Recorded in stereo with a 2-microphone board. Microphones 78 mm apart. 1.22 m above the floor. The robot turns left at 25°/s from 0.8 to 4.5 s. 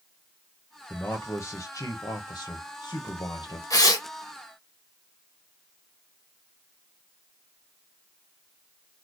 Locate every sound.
0.9 s a man speaking: 155° left, 0.9 m; by 3.6 s 85° left, 0.9 m
3.7 s tearing paper: 45° left (ahead or behind), 1.3 m; by 4.1 s 55° left (ahead or behind), 1.3 m